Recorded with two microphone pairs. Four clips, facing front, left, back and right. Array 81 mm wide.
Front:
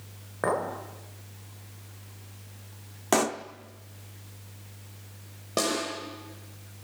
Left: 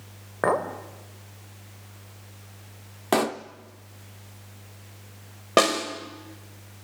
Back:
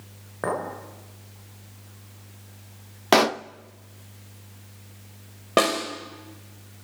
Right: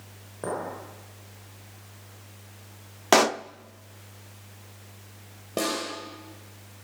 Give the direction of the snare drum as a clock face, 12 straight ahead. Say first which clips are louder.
Left 8 dB, back 7 dB; 8 o'clock.